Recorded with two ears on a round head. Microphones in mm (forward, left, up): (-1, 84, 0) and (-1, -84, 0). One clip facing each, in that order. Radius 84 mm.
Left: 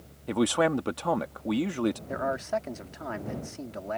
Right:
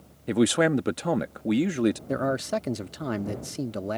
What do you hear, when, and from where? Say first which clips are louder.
0.3 s a man speaking: right 3 dB; 20° right (ahead or behind)
2.1 s a man speaking: right 3 dB; 45° right (ahead or behind)